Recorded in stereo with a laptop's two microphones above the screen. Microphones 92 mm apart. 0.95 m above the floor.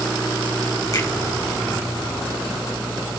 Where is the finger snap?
40° left (ahead or behind), 4.5 m.